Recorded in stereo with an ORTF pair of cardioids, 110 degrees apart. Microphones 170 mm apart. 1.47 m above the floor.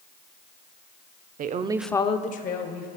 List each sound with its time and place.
1.4 s a woman speaking: 55° right, 0.7 m; by 2.9 s 65° left, 1.4 m